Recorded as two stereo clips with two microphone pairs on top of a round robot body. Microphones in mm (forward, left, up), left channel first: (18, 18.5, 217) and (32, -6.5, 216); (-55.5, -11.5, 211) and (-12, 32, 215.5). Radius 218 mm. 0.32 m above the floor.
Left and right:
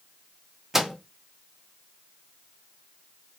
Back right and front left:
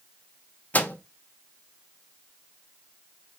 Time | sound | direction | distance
0.7 | a microwave | 125° right | 0.7 m